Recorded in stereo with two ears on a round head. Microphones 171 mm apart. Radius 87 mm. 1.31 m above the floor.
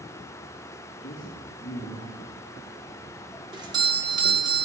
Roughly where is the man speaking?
Left.